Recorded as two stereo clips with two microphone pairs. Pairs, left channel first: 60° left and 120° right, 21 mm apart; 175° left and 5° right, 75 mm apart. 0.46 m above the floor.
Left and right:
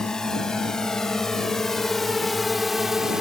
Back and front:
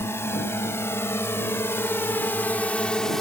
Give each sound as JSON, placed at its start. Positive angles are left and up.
{"t": 0.0, "sound": "a drone", "azimuth_deg": 120}